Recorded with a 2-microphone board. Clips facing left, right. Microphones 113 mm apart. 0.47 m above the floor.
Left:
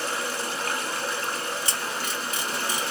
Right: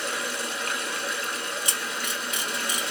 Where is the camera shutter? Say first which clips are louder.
Left 2 dB; 15° right (ahead or behind), 1.6 m.